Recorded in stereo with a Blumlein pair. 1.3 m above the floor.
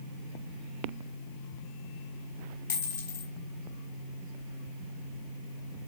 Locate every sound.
2.7 s a dropped coin: 60° left, 3 m